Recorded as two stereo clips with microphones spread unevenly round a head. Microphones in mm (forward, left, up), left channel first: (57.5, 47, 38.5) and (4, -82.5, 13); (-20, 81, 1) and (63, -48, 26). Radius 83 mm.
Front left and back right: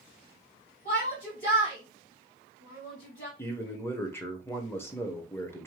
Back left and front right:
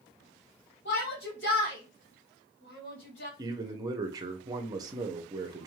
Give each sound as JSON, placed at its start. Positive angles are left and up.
{"t": 0.8, "sound": "a shout", "azimuth_deg": 110, "distance_m": 1.8}
{"t": 3.4, "sound": "a man speaking", "azimuth_deg": 0, "distance_m": 0.9}